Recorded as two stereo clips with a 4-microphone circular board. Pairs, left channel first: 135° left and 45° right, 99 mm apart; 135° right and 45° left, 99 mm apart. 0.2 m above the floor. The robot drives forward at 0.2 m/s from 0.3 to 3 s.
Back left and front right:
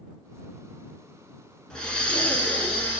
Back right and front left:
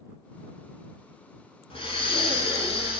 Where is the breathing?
145° right, 0.7 m; by 3.0 s 155° right, 0.9 m.